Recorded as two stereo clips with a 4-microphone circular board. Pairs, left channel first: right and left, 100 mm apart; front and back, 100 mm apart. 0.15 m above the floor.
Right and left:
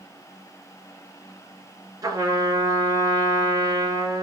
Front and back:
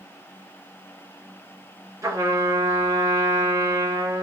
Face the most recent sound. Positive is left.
turn(degrees=135)